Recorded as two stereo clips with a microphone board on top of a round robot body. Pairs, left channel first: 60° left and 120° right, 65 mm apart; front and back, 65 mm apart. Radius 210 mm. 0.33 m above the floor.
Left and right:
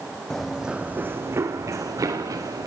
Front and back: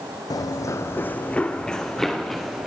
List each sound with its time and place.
0.3 s running footsteps: 25° right, 1.5 m; by 2.7 s 90° right, 3.5 m